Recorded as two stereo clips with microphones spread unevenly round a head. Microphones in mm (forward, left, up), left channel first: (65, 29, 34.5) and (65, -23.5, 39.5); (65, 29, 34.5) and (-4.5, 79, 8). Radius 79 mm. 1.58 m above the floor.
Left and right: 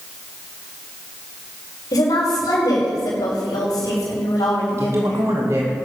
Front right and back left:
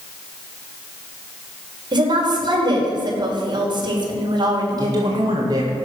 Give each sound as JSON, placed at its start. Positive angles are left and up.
{"t": 1.9, "sound": "a woman speaking", "azimuth_deg": 110, "distance_m": 5.0}
{"t": 4.8, "sound": "a man speaking", "azimuth_deg": -155, "distance_m": 1.9}